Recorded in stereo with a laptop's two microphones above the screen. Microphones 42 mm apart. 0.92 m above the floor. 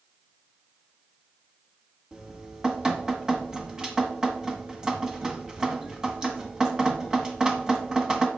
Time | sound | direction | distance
2.1 | dripping | 15° right (ahead or behind) | 1.5 m